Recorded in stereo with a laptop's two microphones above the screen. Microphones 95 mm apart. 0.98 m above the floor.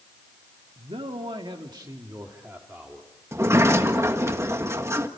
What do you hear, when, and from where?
0.8 s a man speaking: 80° right, 1.8 m; by 3.1 s 5° right (ahead or behind), 2.0 m
3.3 s a sliding door: 30° right (ahead or behind), 1.6 m